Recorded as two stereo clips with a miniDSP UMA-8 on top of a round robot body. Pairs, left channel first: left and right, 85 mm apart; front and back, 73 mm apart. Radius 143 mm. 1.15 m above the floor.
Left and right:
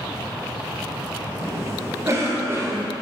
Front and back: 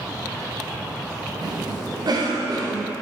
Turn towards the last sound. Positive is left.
turn(degrees=-150)